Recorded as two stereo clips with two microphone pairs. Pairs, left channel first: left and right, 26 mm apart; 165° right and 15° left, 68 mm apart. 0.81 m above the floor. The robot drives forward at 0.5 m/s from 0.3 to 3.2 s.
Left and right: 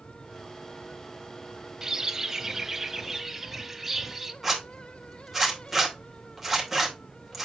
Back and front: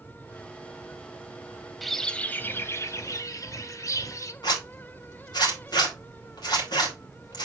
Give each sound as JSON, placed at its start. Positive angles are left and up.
{"t": 1.8, "sound": "a bird", "azimuth_deg": -70, "distance_m": 0.6}
{"t": 4.4, "sound": "a zipper", "azimuth_deg": -170, "distance_m": 2.5}